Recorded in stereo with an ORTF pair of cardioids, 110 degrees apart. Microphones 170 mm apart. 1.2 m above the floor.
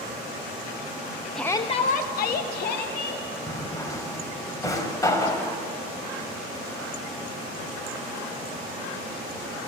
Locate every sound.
1.4 s a shout: straight ahead, 0.9 m; by 3.2 s 75° left, 3 m
3.5 s a drawer: 20° left, 3 m